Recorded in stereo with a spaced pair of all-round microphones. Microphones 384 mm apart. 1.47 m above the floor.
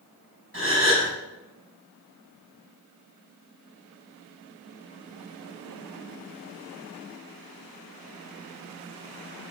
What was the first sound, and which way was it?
A gasp, 35° right (ahead or behind).